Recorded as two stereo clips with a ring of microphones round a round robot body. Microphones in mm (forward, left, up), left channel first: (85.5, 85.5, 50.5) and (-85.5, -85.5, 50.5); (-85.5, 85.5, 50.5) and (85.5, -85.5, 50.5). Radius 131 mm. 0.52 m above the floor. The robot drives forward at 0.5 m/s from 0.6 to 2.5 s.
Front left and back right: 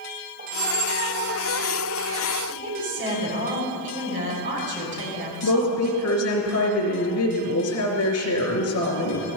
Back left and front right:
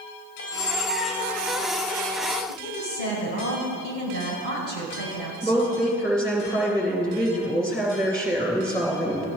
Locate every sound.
0.4 s a squeak: 175° left, 0.7 m
2.5 s a woman speaking: 175° right, 4 m
5.4 s a woman speaking: 50° left, 3 m